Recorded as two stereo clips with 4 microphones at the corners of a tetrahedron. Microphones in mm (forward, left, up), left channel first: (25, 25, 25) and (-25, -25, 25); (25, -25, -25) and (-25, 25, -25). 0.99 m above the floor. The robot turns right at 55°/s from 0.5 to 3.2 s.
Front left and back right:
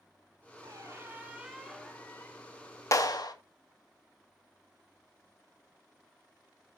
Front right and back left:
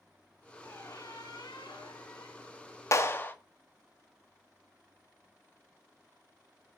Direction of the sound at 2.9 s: 5° left.